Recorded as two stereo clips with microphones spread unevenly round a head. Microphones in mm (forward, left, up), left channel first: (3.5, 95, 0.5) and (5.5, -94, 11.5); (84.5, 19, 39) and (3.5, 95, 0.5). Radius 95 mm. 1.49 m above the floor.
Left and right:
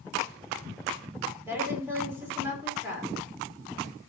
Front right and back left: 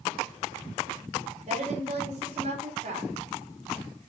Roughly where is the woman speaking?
Behind.